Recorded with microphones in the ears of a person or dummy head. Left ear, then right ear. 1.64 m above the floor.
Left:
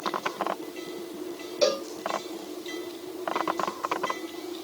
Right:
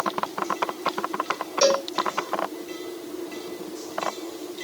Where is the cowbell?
60° right (ahead or behind), 2 m.